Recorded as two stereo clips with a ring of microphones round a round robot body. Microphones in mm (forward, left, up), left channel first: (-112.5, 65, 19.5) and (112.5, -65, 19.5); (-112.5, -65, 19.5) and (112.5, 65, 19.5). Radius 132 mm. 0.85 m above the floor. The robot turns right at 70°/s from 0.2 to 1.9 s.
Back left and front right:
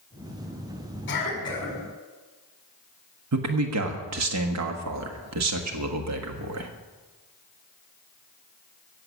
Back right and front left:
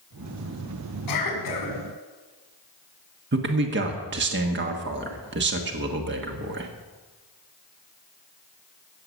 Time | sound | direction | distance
1.1 | a cough | 165° right | 6 m
3.3 | a man speaking | 15° right | 1.3 m